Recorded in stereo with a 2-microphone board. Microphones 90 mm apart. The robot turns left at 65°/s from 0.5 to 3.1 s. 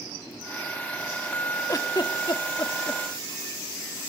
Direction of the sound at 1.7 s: 45° left (ahead or behind).